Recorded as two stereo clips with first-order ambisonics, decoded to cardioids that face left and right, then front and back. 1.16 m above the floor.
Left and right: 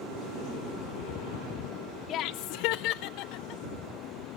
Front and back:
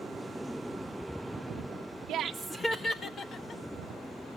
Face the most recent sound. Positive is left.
turn(degrees=55)